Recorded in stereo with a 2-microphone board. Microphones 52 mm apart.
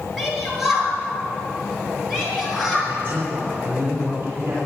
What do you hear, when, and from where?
0.2 s a shout: centre (ahead or behind), 6 m; by 2.8 s 5° right (ahead or behind), 8.5 m
2.9 s a man speaking: 70° right (ahead or behind), 6 m